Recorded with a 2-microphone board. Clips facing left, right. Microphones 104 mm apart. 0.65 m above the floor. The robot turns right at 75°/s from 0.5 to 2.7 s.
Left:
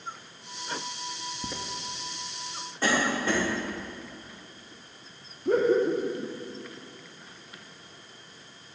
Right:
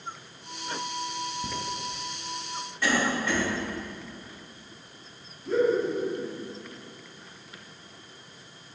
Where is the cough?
35° left (ahead or behind), 2.0 m.